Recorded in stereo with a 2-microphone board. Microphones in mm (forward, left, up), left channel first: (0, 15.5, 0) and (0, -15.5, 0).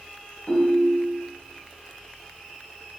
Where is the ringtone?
50° left (ahead or behind), 1.8 m.